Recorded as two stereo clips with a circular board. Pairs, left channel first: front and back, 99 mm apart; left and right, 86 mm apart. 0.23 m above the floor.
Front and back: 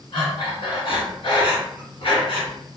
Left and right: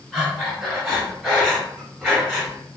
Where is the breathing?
Straight ahead, 1.5 m.